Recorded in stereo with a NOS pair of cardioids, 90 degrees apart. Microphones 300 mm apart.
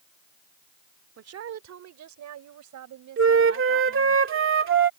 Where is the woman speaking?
50° right; by 4.2 s 80° right.